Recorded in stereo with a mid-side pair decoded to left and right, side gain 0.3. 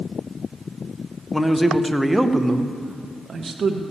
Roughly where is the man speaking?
Ahead.